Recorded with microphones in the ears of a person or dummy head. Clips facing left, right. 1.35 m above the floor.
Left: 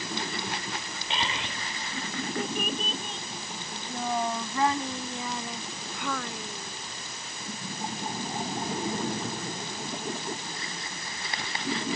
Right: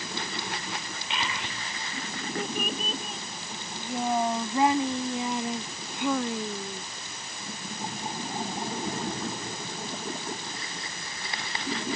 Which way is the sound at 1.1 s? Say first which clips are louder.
Left 1 dB; 35° left (ahead or behind).